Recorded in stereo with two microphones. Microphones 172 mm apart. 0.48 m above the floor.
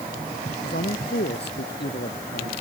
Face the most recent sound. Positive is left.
turn(degrees=80)